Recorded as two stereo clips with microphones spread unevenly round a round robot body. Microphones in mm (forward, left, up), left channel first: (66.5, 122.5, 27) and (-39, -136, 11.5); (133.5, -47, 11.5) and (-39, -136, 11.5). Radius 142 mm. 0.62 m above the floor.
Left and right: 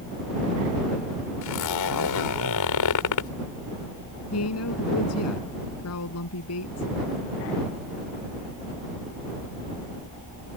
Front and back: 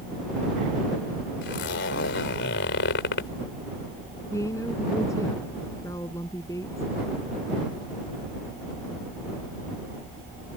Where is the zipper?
60° left.